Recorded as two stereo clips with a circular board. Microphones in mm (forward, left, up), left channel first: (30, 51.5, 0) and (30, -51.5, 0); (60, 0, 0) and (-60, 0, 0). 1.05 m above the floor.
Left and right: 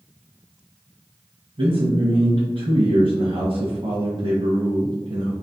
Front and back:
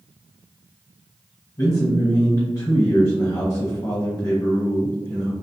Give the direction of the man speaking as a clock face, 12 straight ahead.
2 o'clock.